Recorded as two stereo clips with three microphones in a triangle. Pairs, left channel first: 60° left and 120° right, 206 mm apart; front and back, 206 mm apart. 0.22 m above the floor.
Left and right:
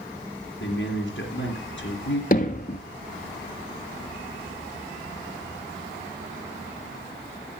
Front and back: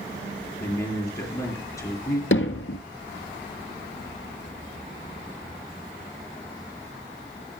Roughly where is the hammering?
Ahead.